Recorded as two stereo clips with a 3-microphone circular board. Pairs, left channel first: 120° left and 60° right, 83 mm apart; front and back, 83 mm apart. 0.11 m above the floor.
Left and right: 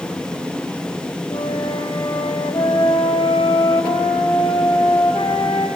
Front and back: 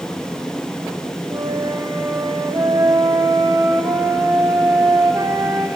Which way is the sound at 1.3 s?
135° left.